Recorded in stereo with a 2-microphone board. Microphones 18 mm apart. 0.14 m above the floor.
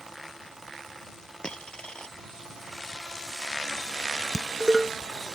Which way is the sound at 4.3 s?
30° right (ahead or behind).